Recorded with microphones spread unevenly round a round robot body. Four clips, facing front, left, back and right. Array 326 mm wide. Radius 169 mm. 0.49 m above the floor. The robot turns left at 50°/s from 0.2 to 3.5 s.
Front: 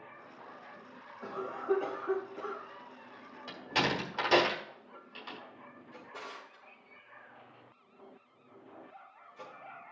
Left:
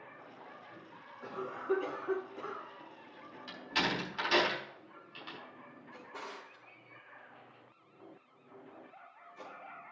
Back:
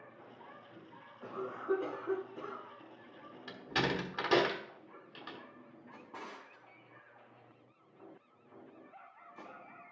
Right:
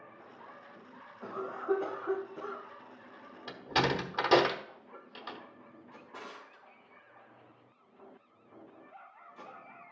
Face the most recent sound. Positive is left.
turn(degrees=-165)